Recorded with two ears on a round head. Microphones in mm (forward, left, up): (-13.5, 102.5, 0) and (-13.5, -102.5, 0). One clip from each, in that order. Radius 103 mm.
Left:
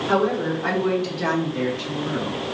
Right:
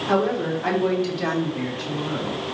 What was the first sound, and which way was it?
A woman speaking, 15° right (ahead or behind).